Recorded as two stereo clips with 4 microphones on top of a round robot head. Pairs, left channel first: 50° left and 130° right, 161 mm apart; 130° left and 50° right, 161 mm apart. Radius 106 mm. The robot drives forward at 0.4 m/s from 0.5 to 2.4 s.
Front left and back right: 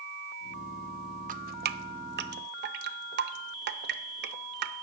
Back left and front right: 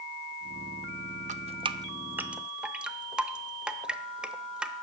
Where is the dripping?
95° right, 0.5 m; by 4.7 s 135° right, 0.7 m.